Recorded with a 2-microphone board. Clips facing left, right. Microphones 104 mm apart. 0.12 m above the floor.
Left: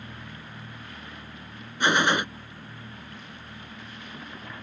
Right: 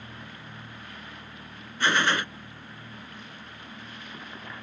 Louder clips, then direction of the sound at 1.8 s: Left 2 dB; 20° left (ahead or behind).